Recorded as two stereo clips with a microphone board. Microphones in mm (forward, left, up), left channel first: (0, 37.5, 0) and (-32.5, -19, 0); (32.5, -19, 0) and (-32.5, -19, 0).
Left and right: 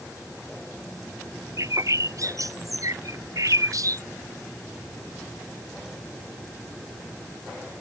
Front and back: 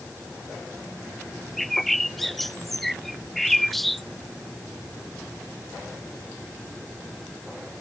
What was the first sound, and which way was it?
A bird, 90° right.